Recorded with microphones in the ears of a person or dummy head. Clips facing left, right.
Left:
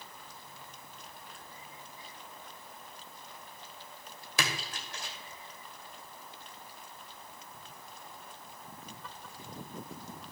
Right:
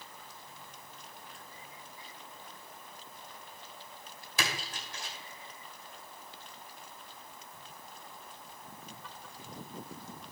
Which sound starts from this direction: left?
A splash, at 4.4 s.